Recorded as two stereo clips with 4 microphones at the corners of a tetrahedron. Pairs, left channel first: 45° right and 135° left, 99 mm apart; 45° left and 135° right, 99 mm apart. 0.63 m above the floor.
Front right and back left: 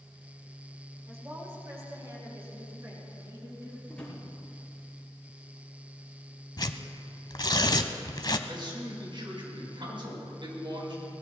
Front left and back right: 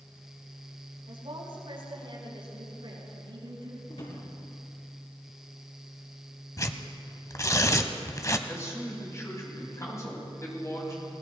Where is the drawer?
35° left, 4.5 m.